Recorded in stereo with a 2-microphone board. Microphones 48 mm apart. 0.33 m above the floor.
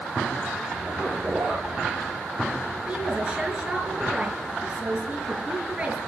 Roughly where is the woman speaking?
Right.